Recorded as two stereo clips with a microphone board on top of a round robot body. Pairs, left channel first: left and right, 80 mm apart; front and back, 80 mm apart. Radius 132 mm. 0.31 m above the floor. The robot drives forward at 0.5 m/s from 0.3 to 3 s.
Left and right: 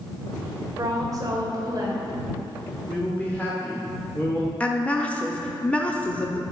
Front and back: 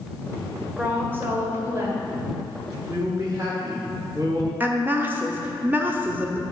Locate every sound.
0.8 s a woman speaking: 115° right, 2 m; by 2.0 s 130° right, 2.5 m
2.9 s a man speaking: 155° left, 1.7 m
4.6 s a woman speaking: 145° left, 0.9 m